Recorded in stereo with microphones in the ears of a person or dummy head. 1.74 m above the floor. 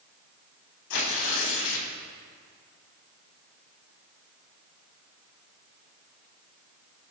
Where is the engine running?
No engine running in this recording.